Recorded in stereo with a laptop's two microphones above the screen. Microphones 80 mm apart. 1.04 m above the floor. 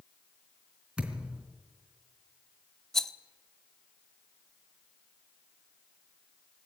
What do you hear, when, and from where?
1.0 s a thud: 10° right (ahead or behind), 3.5 m
2.9 s a rattle: 5° left (ahead or behind), 0.6 m